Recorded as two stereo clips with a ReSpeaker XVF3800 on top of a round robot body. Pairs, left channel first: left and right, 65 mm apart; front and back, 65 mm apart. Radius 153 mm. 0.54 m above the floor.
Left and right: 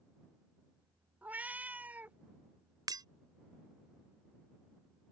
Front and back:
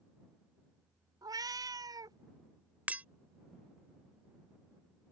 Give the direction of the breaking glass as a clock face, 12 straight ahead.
4 o'clock.